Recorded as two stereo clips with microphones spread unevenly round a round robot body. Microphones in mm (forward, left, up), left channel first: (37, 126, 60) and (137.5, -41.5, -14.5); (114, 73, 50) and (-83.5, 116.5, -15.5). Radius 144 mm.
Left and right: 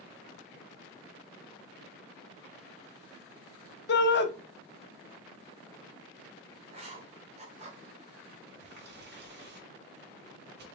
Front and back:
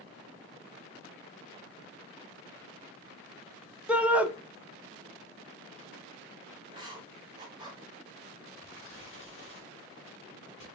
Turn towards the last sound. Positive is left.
turn(degrees=-60)